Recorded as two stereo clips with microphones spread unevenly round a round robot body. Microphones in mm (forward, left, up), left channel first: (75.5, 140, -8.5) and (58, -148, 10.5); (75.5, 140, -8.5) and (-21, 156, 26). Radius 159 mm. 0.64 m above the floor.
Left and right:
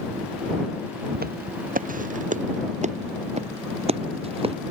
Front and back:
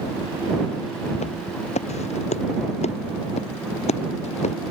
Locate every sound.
1.1 s footsteps: 35° right; by 4.5 s 25° right